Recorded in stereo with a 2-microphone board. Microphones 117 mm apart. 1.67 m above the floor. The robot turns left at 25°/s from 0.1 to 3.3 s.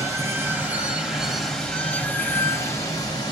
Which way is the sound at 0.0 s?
150° right.